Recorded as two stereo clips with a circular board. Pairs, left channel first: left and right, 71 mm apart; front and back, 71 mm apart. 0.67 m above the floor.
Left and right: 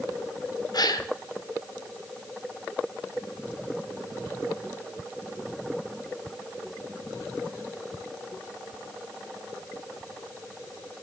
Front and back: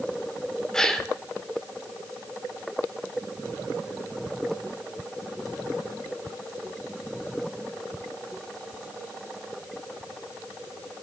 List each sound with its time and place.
0.7 s a gasp: 80° left, 1.1 m